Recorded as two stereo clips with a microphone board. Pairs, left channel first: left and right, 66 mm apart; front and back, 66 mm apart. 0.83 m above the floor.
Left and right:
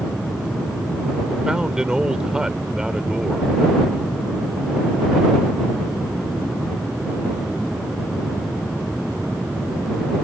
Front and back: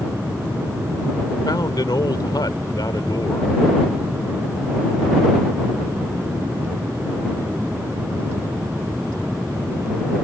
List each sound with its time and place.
1.4 s a man speaking: 10° right